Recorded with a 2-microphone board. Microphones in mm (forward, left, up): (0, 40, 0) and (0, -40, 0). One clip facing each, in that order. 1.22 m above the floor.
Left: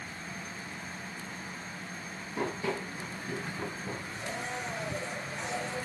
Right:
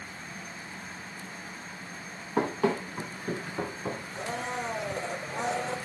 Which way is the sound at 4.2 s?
80° right.